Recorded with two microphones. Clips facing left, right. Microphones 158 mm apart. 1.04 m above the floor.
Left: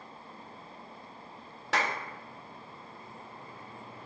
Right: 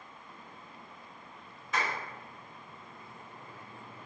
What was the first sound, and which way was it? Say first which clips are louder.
A clap: left 3 dB; 80° left.